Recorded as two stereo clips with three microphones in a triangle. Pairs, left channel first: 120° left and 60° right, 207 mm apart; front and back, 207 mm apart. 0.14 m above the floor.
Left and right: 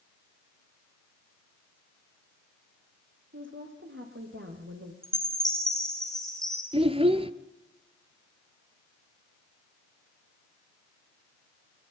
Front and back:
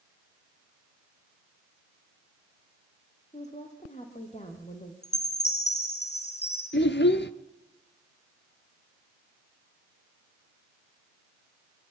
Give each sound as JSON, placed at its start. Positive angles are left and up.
{"t": 3.3, "sound": "a woman speaking", "azimuth_deg": -55, "distance_m": 5.0}
{"t": 5.0, "sound": "a chime", "azimuth_deg": 30, "distance_m": 6.0}
{"t": 6.7, "sound": "a child speaking", "azimuth_deg": -5, "distance_m": 1.3}